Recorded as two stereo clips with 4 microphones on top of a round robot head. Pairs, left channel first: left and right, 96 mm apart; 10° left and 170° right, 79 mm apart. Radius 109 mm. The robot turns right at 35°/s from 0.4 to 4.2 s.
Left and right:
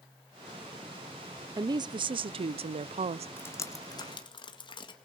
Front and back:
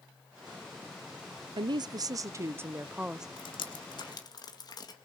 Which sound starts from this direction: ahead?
Dripping, at 3.4 s.